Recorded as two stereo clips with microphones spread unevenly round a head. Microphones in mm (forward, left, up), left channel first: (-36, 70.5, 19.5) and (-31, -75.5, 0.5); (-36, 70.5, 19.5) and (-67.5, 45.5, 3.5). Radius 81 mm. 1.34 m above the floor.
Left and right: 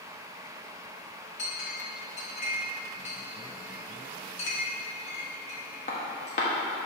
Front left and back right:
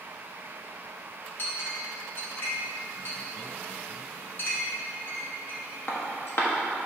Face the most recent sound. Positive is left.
turn(degrees=45)